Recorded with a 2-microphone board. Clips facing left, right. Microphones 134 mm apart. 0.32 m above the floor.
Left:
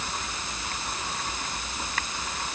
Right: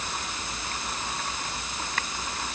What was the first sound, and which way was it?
Only background noise.